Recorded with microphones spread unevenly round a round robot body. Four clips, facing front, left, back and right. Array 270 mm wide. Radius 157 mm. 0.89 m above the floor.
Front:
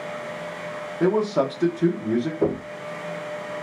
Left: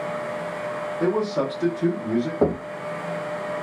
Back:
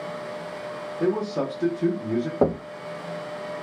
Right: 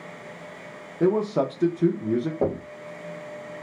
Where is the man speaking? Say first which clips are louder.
Right 2 dB, front 4 dB; 45° right, 0.7 m.